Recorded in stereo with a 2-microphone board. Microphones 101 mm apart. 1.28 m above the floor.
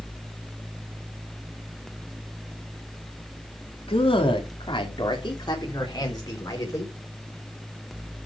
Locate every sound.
3.9 s a man speaking: 65° left (ahead or behind), 3 m; by 7.0 s 35° left (ahead or behind), 5 m